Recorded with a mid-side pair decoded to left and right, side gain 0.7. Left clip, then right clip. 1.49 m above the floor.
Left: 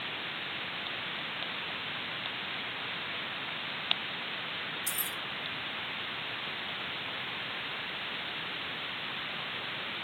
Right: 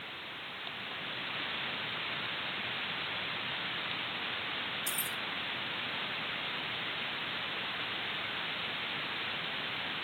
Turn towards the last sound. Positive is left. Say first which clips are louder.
# even
turn(degrees=0)